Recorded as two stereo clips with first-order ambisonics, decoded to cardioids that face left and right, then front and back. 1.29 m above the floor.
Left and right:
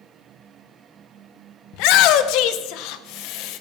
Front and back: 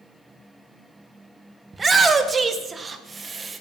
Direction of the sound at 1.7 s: 105° left.